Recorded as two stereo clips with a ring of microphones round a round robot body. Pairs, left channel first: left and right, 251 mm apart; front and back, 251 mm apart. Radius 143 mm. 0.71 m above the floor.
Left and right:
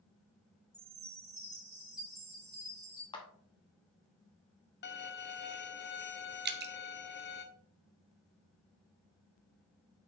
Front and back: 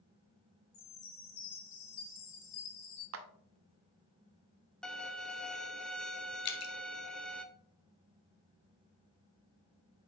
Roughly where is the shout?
No shout in this recording.